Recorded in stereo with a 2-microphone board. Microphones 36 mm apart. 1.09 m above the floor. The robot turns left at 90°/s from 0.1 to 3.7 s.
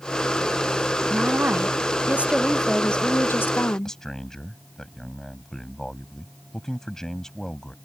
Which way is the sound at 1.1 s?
40° right.